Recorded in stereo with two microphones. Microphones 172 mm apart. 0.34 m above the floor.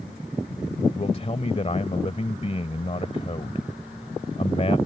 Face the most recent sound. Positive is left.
turn(degrees=40)  # may be behind; listen again after turning